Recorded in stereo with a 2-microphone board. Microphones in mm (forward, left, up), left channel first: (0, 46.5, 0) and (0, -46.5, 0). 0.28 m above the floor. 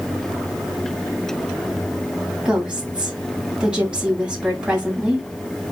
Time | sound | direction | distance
2.5 | a woman speaking | 10° right (ahead or behind) | 2 m